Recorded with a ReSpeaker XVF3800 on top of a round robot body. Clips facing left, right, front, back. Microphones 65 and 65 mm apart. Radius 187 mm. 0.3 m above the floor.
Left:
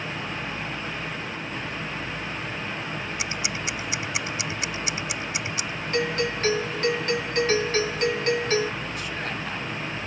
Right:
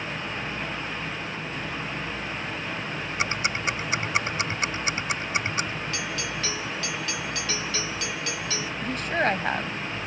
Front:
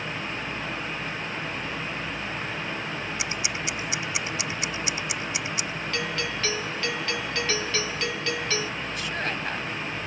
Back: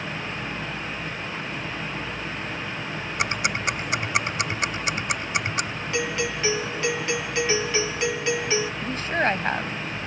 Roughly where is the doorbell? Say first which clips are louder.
Left 6 dB, back 5 dB; left.